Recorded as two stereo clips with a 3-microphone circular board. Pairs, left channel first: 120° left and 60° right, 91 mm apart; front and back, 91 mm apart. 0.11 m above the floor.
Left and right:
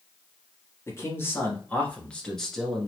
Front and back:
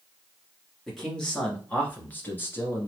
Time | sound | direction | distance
0.9 | a man speaking | 85° left | 1.9 m